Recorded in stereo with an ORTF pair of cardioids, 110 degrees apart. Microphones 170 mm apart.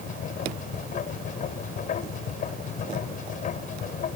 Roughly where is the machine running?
Ahead left.